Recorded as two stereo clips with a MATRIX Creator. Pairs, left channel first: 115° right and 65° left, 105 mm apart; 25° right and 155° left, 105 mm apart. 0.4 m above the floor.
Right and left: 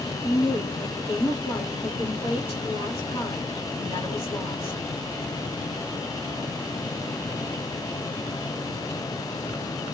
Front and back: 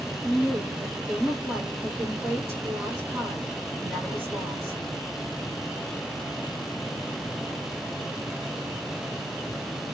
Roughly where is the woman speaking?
Right.